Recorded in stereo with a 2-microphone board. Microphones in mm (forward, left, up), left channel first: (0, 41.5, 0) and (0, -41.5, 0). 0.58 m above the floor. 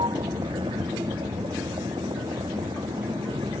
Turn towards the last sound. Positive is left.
turn(degrees=-80)